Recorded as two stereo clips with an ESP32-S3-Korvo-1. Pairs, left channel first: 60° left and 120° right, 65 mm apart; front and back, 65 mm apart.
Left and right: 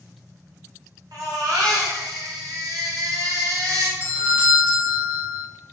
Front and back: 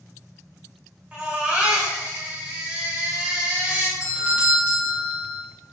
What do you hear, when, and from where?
1.1 s a baby crying: 110° right, 0.8 m
4.0 s a doorbell: 140° right, 0.7 m